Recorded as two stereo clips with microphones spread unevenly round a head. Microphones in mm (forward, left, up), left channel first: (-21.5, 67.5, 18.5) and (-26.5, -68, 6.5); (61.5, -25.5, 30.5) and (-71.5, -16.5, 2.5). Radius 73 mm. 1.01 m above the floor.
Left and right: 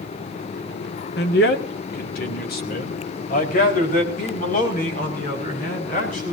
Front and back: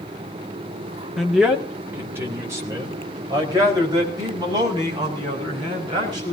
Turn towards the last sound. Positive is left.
turn(degrees=115)